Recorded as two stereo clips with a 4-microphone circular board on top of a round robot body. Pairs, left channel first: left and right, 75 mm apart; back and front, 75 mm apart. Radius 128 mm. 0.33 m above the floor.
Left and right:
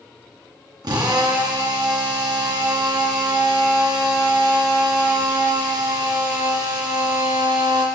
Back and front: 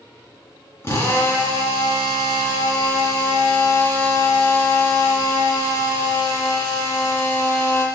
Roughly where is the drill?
Behind right.